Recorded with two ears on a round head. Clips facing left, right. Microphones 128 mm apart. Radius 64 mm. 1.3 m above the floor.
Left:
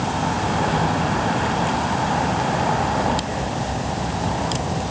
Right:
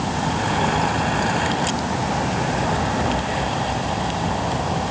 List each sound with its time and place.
Only background noise.